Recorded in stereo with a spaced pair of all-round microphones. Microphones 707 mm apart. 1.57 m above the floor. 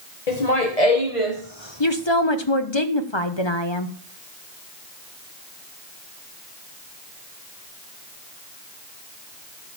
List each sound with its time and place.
0.3 s laughter: 65° left (ahead or behind), 1.6 m; by 2.8 s 20° left (ahead or behind), 2 m
1.8 s a woman speaking: 40° left (ahead or behind), 1.2 m